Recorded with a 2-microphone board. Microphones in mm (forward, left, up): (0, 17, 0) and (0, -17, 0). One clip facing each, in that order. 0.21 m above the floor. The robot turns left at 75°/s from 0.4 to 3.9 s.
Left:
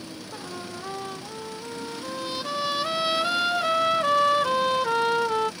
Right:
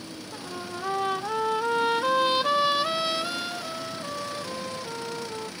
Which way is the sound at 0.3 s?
5° left.